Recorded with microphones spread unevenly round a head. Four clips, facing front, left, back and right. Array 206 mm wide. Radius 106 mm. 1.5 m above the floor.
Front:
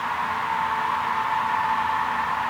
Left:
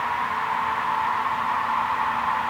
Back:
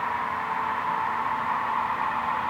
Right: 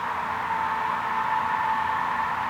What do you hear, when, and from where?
Only background noise.